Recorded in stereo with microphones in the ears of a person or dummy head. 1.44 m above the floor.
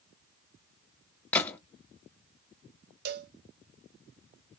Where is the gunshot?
10° left (ahead or behind), 0.7 m.